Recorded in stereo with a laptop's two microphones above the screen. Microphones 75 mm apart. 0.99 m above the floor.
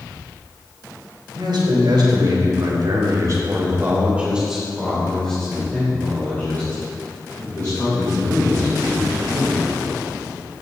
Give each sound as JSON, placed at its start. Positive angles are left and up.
{"t": 1.3, "sound": "a man speaking", "side_deg": -85, "distance_m": 3.0}